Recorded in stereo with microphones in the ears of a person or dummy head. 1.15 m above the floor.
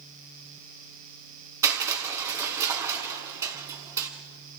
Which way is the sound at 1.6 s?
15° right (ahead or behind).